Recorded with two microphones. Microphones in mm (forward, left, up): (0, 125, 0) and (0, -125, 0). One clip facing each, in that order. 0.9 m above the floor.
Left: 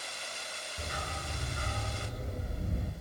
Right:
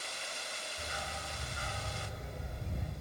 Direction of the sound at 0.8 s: 70° left (ahead or behind).